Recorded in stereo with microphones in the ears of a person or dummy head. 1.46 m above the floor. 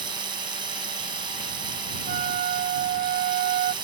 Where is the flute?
40° right (ahead or behind).